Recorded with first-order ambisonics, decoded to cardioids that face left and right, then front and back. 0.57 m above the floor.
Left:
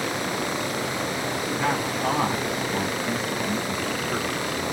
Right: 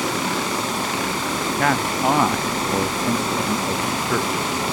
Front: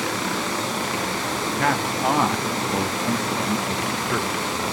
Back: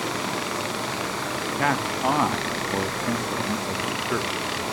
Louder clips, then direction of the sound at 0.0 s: Right 4 dB, front 3 dB; 75° right.